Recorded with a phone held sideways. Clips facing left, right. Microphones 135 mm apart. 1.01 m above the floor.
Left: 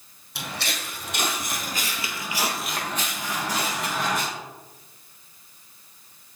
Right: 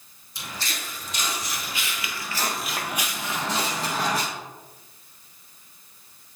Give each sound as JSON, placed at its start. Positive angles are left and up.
{"t": 0.3, "sound": "footsteps", "side_deg": 70, "distance_m": 3.0}